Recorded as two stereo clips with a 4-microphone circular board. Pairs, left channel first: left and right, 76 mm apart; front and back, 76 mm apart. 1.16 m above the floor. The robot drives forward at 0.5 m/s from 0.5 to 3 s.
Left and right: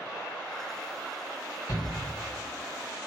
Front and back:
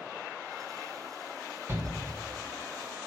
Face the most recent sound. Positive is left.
turn(degrees=135)